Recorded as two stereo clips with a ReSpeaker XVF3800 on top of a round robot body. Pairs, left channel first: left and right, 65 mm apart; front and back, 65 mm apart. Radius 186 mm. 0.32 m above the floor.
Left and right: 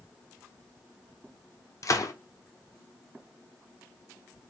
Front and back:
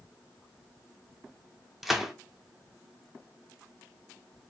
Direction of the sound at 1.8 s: 95° left.